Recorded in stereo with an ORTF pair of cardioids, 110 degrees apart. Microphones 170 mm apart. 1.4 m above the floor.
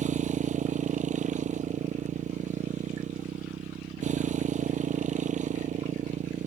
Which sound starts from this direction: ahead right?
A motorcycle, at 0.0 s.